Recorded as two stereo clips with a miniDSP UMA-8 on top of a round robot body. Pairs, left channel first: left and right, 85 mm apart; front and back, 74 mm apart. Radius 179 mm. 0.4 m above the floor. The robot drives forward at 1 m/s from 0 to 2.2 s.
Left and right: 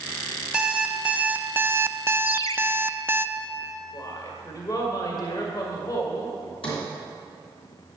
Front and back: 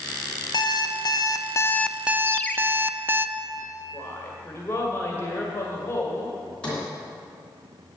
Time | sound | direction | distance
0.5 | an alarm clock | 10° right | 1.5 m
2.3 | a ringtone | 60° left | 0.7 m
3.9 | a woman speaking | 55° left | 1.9 m
6.6 | a sliding door | 75° left | 3 m